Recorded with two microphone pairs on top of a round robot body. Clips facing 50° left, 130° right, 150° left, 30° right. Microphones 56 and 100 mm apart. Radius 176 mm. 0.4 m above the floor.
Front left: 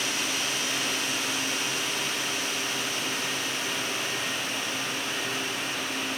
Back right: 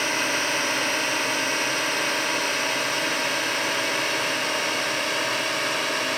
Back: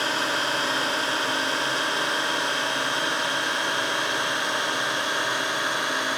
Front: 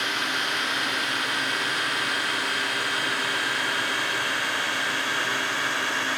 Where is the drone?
165° right; by 6.2 s 145° right.